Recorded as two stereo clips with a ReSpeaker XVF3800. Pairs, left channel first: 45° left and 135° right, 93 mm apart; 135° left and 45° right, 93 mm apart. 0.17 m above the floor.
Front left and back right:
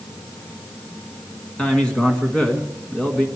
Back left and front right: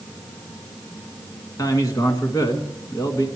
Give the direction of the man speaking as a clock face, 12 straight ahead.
8 o'clock.